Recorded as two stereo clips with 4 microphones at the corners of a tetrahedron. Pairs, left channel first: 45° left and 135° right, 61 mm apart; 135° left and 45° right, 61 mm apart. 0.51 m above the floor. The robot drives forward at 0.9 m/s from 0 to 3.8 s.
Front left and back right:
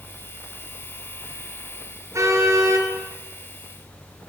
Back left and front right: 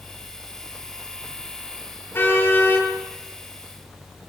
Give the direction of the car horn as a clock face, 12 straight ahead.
6 o'clock.